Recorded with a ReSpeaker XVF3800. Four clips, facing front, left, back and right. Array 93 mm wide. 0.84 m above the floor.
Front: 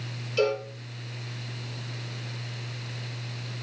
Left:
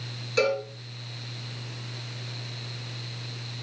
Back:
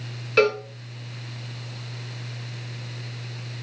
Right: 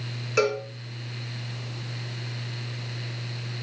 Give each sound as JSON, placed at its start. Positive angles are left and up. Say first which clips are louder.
{"t": 0.4, "sound": "a cowbell", "louder": "right 1 dB, back 5 dB", "azimuth_deg": -155, "distance_m": 1.9}